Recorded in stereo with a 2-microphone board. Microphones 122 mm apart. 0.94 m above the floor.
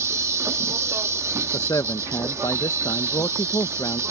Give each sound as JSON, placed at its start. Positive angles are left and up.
{"t": 0.0, "sound": "an insect", "side_deg": -20}
{"t": 1.5, "sound": "a man speaking", "side_deg": 30}